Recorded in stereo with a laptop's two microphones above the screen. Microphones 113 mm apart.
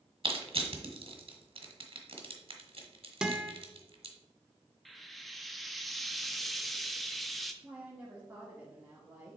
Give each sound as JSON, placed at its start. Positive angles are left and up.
{"t": 0.2, "sound": "crushing", "side_deg": -55, "distance_m": 1.2}
{"t": 3.2, "sound": "a guitar", "side_deg": -5, "distance_m": 0.8}
{"t": 4.8, "sound": "frying", "side_deg": 0, "distance_m": 0.6}
{"t": 7.6, "sound": "a woman speaking", "side_deg": -15, "distance_m": 1.5}